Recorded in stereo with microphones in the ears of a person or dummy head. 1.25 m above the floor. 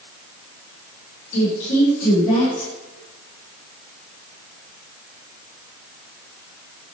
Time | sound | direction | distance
1.3 | a woman speaking | 70° left (ahead or behind) | 4 m